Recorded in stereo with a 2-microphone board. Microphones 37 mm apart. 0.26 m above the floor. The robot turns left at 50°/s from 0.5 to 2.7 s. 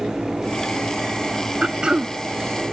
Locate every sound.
1.6 s throat clearing: 30° right (ahead or behind); by 2.1 s 25° right (ahead or behind)